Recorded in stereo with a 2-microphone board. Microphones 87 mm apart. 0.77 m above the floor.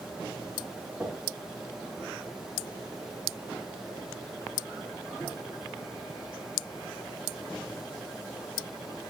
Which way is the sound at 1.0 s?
15° right (ahead or behind).